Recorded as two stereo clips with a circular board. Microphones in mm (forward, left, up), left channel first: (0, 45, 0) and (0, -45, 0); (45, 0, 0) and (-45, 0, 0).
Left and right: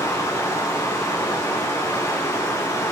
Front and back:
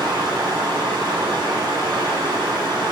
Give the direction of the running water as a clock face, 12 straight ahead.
7 o'clock.